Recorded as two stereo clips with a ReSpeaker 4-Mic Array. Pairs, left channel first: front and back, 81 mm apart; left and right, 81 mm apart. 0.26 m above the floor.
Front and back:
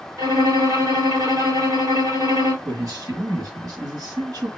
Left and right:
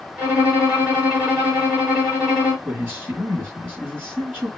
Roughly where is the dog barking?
I don't hear a dog barking.